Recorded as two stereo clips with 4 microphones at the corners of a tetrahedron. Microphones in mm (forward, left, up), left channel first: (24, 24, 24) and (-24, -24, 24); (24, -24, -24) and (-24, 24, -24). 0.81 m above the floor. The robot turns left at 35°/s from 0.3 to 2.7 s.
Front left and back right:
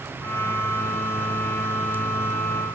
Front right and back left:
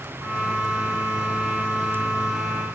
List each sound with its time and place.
Only background noise.